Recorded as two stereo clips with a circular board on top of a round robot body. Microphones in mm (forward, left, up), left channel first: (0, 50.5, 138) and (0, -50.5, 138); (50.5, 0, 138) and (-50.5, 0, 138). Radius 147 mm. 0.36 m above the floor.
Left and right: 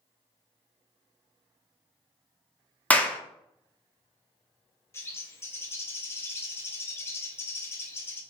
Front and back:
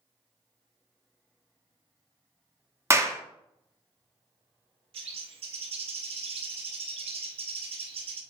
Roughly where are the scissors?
No scissors in this recording.